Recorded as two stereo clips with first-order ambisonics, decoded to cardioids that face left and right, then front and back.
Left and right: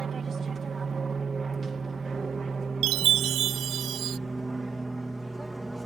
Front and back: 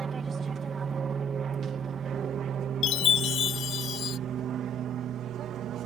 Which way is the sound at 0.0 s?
130° right.